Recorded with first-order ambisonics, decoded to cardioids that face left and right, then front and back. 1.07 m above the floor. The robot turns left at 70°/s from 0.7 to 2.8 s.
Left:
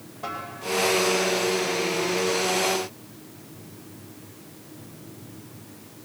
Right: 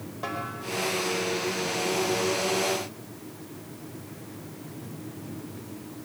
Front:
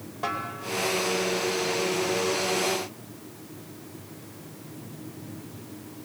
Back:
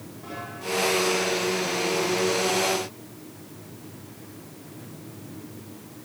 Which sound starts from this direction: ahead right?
A snare drum, at 0.2 s.